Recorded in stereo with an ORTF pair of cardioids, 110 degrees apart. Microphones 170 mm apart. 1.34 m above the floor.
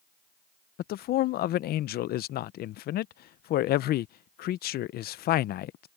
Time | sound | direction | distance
0.8 | a man speaking | 65° left | ?